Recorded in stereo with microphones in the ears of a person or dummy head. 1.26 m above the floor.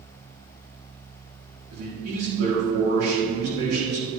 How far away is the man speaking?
About 3.5 m.